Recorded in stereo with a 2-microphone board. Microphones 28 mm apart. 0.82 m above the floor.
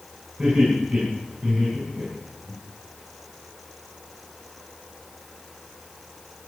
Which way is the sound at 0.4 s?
10° right (ahead or behind).